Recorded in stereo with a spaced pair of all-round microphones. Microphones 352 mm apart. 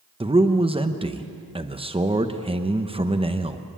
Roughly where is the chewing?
I don't hear chewing.